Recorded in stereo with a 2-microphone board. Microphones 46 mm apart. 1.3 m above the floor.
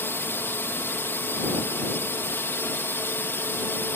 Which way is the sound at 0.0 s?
65° left (ahead or behind).